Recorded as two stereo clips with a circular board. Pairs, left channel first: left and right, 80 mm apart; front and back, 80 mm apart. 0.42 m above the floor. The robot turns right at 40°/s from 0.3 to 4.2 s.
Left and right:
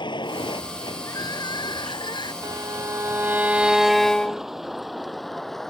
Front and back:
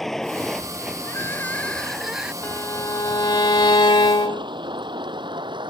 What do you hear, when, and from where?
0.0 s a vehicle: 85° left; by 5.7 s 175° left
1.1 s crying: 50° left; by 2.3 s 100° left
2.4 s a violin: 60° right; by 4.5 s 10° left